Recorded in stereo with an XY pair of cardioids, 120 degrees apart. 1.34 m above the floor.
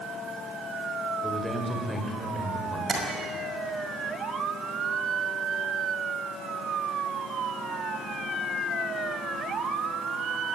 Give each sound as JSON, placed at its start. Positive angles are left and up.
{"t": 1.2, "sound": "a man speaking", "azimuth_deg": -5, "distance_m": 6.0}
{"t": 2.9, "sound": "tapping", "azimuth_deg": -35, "distance_m": 5.5}